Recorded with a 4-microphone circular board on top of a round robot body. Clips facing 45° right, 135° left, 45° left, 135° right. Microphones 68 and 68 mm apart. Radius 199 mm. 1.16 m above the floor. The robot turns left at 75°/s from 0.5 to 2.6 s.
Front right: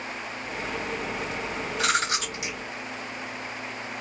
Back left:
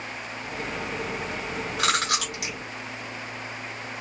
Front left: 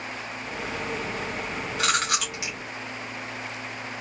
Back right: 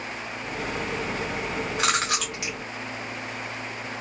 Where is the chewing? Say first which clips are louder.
Even, front left 1 dB; 160° left, 0.7 m; by 2.5 s 105° left, 0.7 m.